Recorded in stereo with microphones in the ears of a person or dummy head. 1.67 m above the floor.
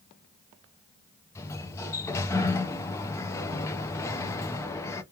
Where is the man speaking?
I don't hear a man speaking.